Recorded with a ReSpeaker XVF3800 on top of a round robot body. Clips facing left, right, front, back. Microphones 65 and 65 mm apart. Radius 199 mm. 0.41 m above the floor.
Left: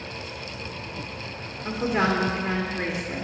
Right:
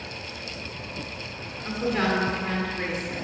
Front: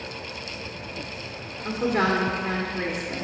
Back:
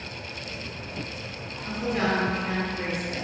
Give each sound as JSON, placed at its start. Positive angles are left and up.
{"t": 1.6, "sound": "a woman speaking", "azimuth_deg": 40, "distance_m": 1.6}